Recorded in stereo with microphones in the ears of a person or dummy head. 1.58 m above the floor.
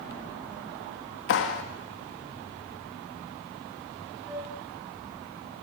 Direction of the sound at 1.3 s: 60° left (ahead or behind).